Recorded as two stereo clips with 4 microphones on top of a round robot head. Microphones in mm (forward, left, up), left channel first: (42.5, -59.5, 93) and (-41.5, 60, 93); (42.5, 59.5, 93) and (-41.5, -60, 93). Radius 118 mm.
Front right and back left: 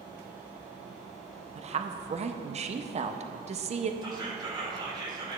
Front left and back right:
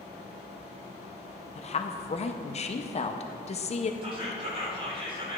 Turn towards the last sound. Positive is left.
turn(degrees=-175)